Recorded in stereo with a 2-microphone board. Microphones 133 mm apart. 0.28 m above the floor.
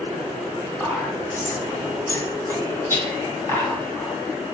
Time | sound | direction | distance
0.8 | whispering | 20° left (ahead or behind) | 1.0 m